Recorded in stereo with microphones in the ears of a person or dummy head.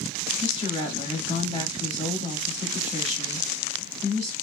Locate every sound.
0.4 s a woman speaking: 30° left (ahead or behind), 1.8 m